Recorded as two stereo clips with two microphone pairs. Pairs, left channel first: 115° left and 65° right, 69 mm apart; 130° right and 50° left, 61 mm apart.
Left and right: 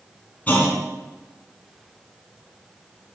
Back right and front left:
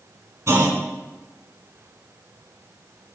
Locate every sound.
0.5 s a clunk: 55° left, 1.7 m